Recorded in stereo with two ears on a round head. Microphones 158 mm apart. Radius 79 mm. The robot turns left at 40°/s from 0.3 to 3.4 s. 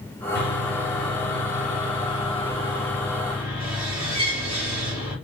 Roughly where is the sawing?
Left.